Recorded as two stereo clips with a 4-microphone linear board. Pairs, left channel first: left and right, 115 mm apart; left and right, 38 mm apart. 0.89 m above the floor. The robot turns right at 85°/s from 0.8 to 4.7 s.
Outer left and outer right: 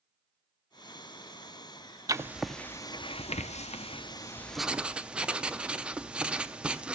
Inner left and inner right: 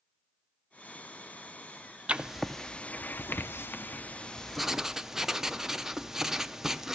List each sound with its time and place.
2.1 s writing: 30° right, 0.5 m; by 7.0 s 170° right, 0.5 m